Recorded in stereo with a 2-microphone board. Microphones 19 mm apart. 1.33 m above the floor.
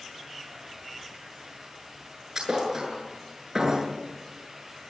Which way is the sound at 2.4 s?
20° right (ahead or behind).